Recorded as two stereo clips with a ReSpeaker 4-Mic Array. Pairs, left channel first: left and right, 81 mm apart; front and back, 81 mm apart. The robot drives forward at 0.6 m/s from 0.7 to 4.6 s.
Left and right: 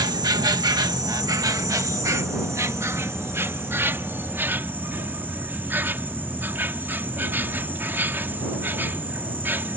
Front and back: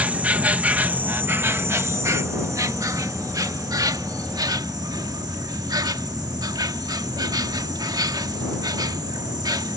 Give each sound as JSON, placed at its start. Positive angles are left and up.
{"t": 0.0, "sound": "an insect", "azimuth_deg": -110}